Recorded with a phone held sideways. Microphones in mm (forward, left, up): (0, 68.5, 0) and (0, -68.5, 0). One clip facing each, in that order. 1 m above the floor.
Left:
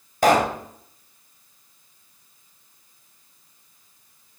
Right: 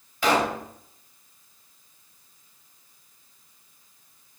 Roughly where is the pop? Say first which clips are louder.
Left 5 dB; left.